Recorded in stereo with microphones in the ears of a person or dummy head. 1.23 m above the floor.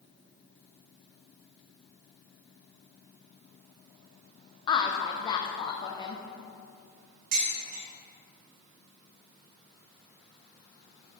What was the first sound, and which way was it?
A woman speaking, 25° left (ahead or behind).